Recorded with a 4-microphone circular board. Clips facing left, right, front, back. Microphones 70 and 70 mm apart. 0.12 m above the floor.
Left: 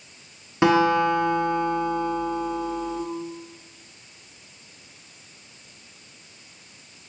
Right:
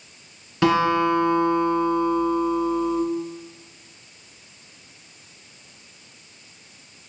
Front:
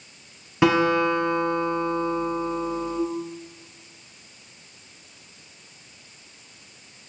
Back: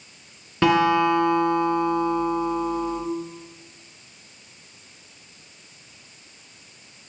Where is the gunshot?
No gunshot in this recording.